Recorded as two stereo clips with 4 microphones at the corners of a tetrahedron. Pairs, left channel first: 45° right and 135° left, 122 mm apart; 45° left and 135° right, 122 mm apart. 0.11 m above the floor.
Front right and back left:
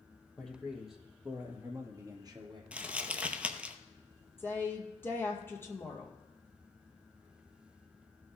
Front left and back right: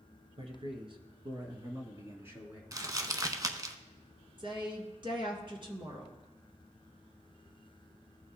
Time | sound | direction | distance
0.4 | a man speaking | 125° right | 1.9 m
2.7 | crumpling | 155° right | 0.7 m
4.4 | a woman speaking | 110° right | 1.8 m